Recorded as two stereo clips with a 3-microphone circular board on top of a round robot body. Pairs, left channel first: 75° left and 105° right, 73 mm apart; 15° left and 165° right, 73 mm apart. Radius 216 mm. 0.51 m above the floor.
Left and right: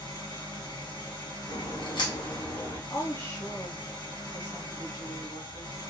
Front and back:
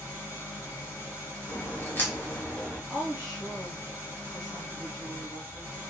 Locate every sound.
0.0 s an engine running: 70° left, 1.5 m
1.5 s a crack: 80° left, 0.9 m
2.9 s a woman speaking: 105° left, 1.3 m